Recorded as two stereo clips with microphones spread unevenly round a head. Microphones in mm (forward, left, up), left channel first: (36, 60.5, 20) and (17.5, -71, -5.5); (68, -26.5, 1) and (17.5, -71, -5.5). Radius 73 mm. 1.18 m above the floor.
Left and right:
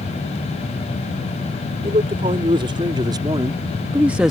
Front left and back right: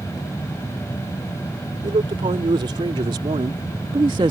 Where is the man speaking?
155° right; by 4.3 s 175° left.